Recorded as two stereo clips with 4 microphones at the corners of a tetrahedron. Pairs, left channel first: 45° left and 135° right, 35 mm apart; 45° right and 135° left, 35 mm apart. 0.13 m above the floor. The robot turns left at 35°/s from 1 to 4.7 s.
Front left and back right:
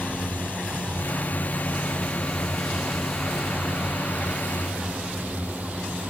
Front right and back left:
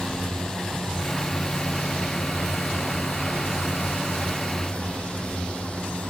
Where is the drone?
25° left; by 6.1 s 100° right.